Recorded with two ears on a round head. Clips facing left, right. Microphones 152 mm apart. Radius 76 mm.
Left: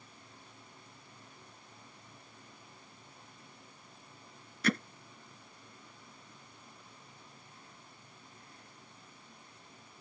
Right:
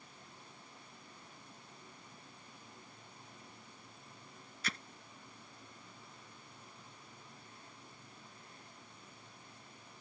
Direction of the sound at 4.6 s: 45° left (ahead or behind).